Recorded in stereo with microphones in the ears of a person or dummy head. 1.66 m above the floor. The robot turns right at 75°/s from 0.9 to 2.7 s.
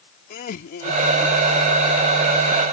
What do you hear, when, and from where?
0.3 s laughter: 130° left; by 1.6 s 175° right